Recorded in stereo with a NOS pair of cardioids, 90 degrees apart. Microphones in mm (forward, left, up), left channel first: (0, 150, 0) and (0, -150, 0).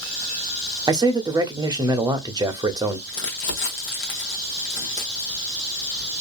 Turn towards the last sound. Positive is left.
turn(degrees=70)